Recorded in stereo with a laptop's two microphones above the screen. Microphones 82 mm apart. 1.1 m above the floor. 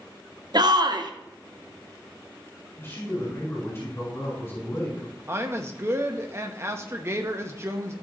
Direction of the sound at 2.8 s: 30° left (ahead or behind).